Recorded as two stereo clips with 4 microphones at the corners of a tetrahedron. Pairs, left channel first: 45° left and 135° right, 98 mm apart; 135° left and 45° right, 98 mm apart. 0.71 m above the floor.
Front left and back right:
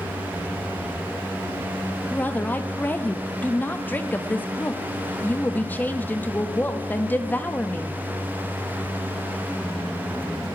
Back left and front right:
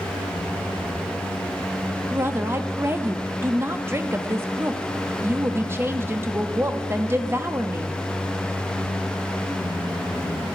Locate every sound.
2.1 s a woman speaking: 10° right, 0.7 m